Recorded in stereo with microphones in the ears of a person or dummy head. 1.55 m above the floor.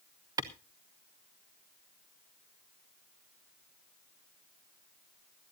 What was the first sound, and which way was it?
A clap, 25° right (ahead or behind).